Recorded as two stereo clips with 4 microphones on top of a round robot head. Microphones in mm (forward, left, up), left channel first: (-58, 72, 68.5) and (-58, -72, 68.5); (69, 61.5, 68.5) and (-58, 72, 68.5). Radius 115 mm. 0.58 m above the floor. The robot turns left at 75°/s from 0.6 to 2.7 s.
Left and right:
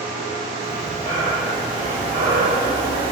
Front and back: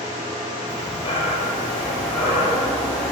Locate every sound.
0.7 s breathing: 65° left, 3.5 m; by 3.1 s 85° right, 3.5 m